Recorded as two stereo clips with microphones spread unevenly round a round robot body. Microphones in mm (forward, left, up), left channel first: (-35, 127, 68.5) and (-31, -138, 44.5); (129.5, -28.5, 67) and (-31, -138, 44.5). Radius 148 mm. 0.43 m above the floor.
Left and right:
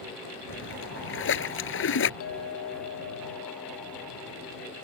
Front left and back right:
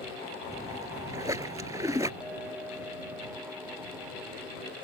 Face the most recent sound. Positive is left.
turn(degrees=125)